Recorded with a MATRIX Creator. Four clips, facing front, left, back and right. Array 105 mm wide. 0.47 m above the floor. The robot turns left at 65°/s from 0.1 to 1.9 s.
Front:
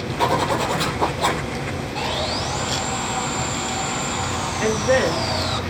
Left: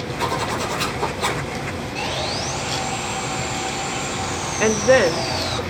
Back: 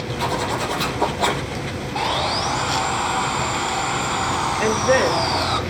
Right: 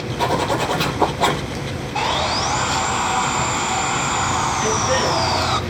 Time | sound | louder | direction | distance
0.2 | a zipper | right 5 dB, front 4 dB | 40° right | 7.5 m
1.9 | sawing | right 8 dB, back 4 dB | 120° right | 2.5 m
4.6 | a woman speaking | left 4 dB, even | 100° left | 1.7 m